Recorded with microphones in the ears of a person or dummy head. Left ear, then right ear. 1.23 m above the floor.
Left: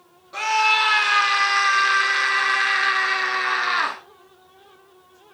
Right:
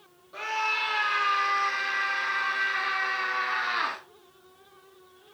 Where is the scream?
30° left (ahead or behind), 3 m; by 4.0 s 70° left (ahead or behind), 1.7 m.